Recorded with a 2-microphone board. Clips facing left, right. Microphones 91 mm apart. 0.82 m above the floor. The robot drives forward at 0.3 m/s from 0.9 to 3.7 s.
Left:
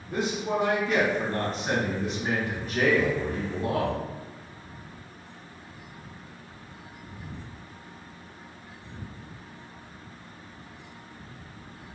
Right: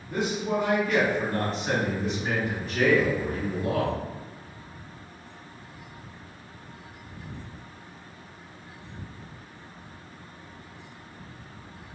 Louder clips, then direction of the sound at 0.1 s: Right 1 dB; 25° left (ahead or behind).